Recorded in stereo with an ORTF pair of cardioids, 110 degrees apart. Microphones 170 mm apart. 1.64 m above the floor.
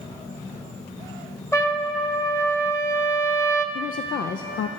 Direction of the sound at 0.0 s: 25° left.